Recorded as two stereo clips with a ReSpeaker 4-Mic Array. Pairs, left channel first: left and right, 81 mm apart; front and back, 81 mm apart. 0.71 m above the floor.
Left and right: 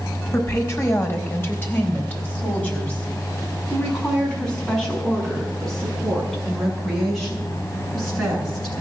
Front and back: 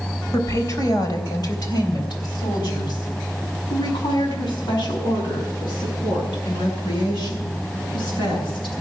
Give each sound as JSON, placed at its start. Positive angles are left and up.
{"t": 0.3, "sound": "a woman speaking", "azimuth_deg": 40, "distance_m": 3.0}